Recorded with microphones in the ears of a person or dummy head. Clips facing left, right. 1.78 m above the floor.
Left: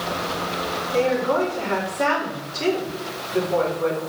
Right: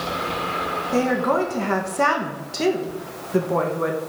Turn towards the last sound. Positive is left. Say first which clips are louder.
# even
turn(degrees=-65)  # may be behind; listen again after turning